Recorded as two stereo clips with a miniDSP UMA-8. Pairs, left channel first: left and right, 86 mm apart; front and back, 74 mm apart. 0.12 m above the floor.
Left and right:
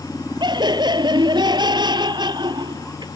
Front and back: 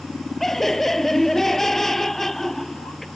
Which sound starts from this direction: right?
Laughter, at 0.4 s.